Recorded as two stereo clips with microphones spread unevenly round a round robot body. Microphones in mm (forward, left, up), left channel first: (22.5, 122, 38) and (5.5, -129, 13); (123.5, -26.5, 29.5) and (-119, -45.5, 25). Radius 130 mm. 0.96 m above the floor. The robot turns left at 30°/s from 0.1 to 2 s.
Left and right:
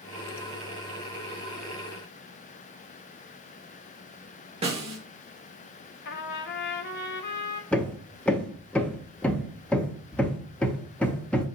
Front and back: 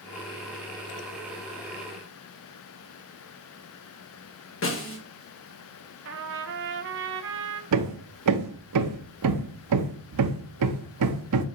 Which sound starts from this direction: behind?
Hammering, at 7.7 s.